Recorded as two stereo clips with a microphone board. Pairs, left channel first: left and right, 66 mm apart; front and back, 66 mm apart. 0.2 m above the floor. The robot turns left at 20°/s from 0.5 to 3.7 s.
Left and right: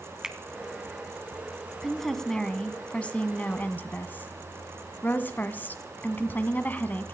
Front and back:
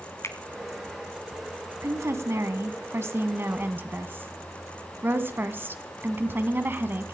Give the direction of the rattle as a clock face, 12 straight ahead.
No rattle in this recording.